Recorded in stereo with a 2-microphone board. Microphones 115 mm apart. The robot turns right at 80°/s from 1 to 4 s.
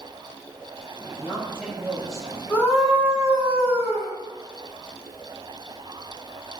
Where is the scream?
160° left, 5 m; by 4.1 s 80° right, 5 m.